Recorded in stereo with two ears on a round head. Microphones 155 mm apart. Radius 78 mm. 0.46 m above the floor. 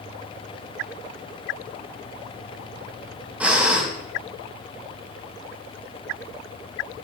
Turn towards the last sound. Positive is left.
turn(degrees=-10)  # may be behind; listen again after turning